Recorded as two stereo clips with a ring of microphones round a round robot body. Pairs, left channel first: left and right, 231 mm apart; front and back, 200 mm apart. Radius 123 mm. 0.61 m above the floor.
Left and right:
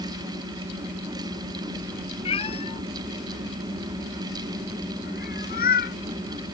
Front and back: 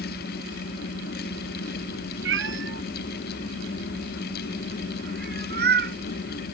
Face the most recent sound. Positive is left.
turn(degrees=145)